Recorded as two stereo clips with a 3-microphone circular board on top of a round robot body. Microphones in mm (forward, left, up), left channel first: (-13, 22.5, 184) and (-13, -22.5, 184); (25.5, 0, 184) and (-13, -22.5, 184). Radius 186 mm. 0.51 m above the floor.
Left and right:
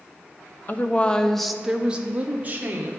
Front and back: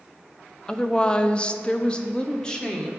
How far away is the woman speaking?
About 0.7 m.